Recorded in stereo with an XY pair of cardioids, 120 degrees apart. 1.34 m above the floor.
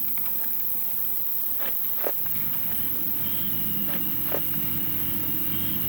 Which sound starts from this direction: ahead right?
An insect, at 0.0 s.